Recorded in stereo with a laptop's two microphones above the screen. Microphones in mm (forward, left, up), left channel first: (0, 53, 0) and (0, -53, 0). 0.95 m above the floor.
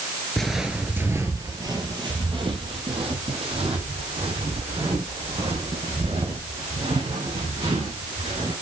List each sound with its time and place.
0.4 s footsteps: 5° left (ahead or behind), 1.0 m; by 8.5 s 75° right (ahead or behind), 6 m